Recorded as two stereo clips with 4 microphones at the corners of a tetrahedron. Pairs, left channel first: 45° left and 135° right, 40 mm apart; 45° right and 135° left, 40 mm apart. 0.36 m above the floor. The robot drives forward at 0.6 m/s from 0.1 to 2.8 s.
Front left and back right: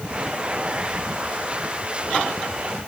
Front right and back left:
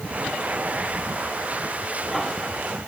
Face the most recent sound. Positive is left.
No sound to turn to.